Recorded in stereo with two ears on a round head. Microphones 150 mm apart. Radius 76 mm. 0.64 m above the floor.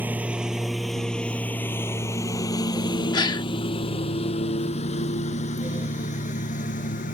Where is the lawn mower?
10° right (ahead or behind); by 7.2 s 50° left (ahead or behind).